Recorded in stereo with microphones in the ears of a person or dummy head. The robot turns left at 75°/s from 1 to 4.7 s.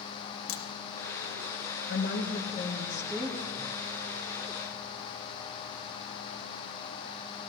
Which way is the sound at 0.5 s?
75° left (ahead or behind).